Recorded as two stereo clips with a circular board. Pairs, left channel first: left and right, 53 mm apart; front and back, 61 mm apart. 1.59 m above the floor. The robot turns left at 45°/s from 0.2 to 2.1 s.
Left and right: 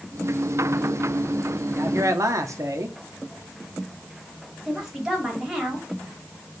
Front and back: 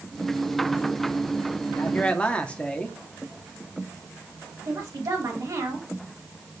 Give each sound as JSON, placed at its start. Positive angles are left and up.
{"t": 1.7, "sound": "a man speaking", "azimuth_deg": -55, "distance_m": 1.2}
{"t": 4.7, "sound": "a woman speaking", "azimuth_deg": -170, "distance_m": 3.0}